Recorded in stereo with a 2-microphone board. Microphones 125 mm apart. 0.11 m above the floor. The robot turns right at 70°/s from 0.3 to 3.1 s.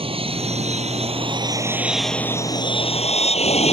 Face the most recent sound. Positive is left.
turn(degrees=75)